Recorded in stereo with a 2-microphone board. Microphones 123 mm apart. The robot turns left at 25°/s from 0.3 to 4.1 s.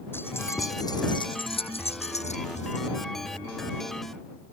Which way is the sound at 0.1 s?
20° left (ahead or behind).